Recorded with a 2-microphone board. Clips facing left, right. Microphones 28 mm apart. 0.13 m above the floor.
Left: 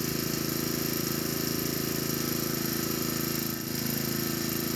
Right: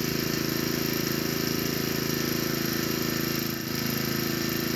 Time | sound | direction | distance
0.0 | an engine running | 25° right (ahead or behind) | 1.0 m